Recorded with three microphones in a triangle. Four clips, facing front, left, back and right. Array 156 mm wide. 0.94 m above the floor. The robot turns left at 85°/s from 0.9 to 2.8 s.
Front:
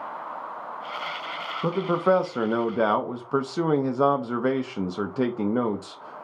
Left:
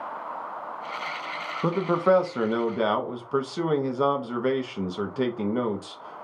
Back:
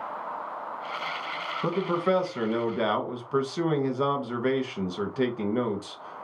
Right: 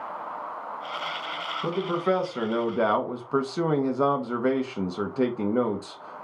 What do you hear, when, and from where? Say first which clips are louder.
1.6 s a man speaking: left 4 dB, front 3 dB; 75° left, 0.7 m; by 6.2 s 20° right, 0.7 m